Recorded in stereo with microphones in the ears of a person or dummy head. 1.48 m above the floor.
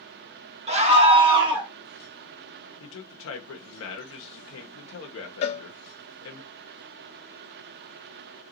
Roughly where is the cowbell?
Left.